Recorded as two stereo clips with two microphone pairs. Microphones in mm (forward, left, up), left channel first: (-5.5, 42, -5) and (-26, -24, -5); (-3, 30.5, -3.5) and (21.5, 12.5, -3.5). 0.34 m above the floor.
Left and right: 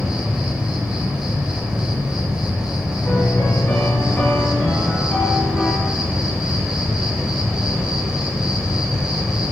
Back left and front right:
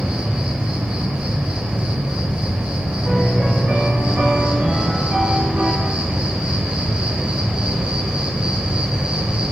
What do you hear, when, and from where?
0.0 s an insect: 40° right, 0.9 m
3.0 s a piano: straight ahead, 2 m